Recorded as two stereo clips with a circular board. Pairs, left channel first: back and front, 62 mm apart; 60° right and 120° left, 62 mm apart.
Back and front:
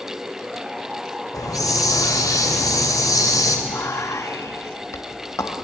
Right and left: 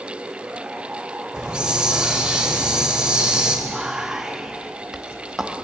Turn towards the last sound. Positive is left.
turn(degrees=-160)